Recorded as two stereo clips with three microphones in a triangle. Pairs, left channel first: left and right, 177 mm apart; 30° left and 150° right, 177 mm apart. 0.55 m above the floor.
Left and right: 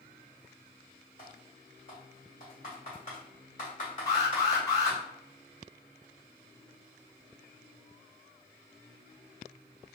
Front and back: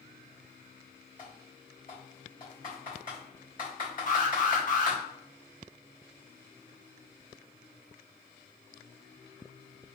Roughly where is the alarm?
Ahead left.